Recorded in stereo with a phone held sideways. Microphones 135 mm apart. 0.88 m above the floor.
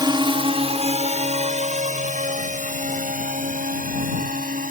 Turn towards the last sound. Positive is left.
turn(degrees=-75)  # may be behind; listen again after turning